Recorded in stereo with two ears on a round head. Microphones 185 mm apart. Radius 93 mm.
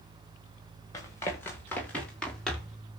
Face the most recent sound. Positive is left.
turn(degrees=0)  # may be behind; listen again after turning